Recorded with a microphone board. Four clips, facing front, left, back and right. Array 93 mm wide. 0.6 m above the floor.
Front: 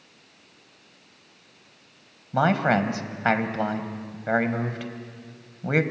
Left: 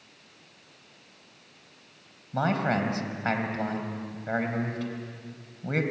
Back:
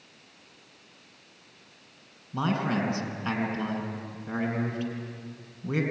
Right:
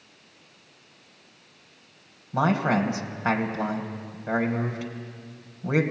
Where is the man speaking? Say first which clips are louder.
Right 3 dB, front 7 dB; 10° right, 2.5 m.